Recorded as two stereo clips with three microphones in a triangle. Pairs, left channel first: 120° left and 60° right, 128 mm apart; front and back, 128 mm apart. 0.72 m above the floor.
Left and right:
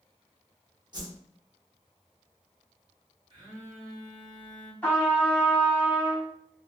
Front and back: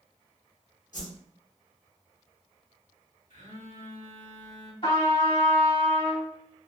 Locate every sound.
0.9 s a whoosh: 5° right, 0.8 m
3.3 s a phone buzzing: 10° right, 1.2 m
4.8 s a trumpet: 40° left, 1.7 m